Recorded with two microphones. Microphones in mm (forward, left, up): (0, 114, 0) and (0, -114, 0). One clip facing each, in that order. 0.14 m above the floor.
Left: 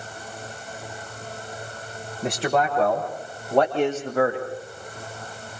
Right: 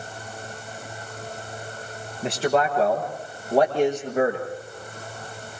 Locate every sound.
2.2 s a man speaking: centre (ahead or behind), 8.5 m; by 4.5 s 20° right (ahead or behind), 7 m